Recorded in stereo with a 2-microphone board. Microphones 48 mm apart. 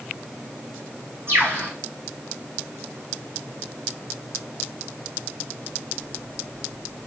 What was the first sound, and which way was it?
A bird, 55° right (ahead or behind).